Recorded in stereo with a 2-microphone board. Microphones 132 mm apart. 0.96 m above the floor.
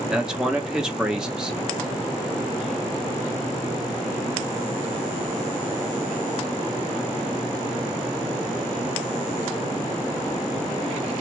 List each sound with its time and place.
0.1 s a man speaking: 5° right (ahead or behind), 1.0 m